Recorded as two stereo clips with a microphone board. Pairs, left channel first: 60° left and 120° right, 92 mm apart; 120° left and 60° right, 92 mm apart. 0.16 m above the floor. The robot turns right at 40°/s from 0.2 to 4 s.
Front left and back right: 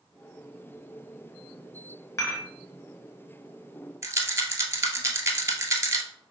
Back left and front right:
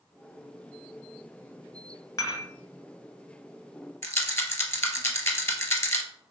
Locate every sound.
2.2 s dishes clattering: 90° left, 1.2 m; by 2.5 s 105° left, 1.2 m
4.0 s a rattle: straight behind, 0.7 m